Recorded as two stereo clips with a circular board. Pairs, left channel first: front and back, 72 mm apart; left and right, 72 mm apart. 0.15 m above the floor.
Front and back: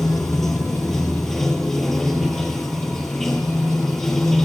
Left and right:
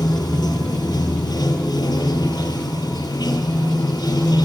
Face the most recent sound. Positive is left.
turn(degrees=85)